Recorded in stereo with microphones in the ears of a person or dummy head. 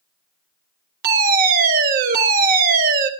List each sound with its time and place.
1.0 s a fire alarm: 50° right (ahead or behind), 3 m